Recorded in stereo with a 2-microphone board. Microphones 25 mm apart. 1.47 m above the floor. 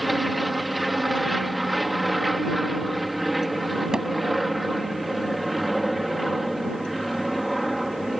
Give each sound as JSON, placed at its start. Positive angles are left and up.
{"t": 0.0, "sound": "an aircraft", "side_deg": 0}
{"t": 3.9, "sound": "hammering", "side_deg": -30}